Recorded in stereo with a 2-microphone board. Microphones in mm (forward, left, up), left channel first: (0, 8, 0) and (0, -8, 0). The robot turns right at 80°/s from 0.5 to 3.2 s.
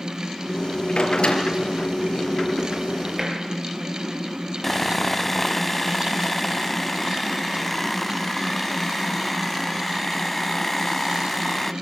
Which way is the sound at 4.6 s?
10° left (ahead or behind).